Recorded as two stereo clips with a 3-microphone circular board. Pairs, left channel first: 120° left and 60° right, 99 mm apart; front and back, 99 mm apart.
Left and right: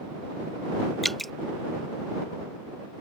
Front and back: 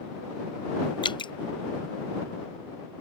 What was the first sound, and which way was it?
Dripping, 30° left.